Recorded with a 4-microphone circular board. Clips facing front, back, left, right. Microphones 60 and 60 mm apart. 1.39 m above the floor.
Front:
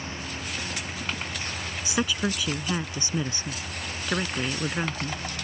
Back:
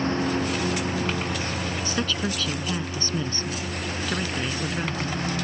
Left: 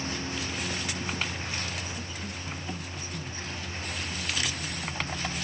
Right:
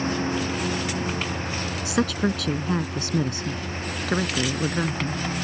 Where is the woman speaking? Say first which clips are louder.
Front 3 dB, right 15 dB; 80° right.